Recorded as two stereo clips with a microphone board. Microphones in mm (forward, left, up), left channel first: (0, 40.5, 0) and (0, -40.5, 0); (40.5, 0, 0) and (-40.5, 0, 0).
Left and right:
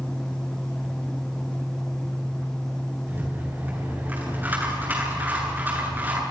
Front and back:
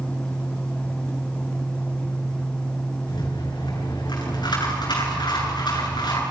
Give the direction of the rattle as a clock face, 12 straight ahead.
1 o'clock.